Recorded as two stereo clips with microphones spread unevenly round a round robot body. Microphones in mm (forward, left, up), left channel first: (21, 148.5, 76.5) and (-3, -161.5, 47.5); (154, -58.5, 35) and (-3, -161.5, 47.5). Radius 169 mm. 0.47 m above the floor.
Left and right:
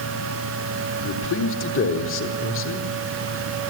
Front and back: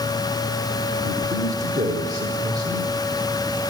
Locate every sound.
1.0 s a man speaking: 140° left, 2.5 m